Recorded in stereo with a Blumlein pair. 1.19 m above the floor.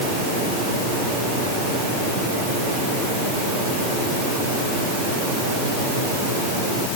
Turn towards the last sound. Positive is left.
No sound to turn to.